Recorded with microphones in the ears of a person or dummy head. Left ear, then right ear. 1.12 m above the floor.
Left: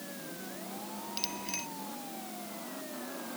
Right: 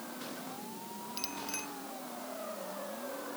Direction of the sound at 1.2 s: 10° left (ahead or behind).